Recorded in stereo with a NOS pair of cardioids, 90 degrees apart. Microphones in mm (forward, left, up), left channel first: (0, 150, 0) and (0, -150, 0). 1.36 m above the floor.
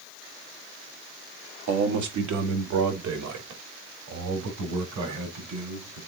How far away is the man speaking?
About 1.9 m.